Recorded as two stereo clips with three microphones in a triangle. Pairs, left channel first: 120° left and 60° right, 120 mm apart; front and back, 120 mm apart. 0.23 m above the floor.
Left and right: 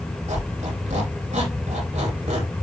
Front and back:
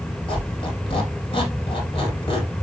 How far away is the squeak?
About 6 m.